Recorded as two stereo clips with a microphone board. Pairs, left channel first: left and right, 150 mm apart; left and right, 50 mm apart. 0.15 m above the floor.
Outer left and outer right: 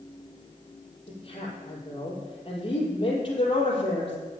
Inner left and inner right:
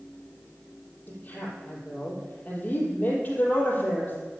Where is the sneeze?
I don't hear a sneeze.